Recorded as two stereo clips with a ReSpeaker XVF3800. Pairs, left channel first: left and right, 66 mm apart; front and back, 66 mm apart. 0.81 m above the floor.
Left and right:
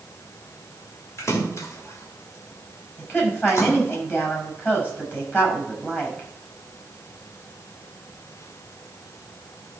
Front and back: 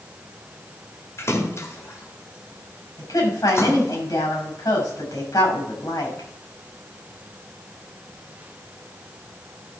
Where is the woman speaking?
25° left, 5.5 m.